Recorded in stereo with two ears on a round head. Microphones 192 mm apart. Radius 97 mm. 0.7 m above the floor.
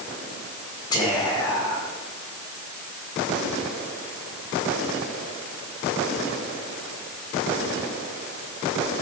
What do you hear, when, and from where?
0.9 s whispering: 20° left (ahead or behind), 3 m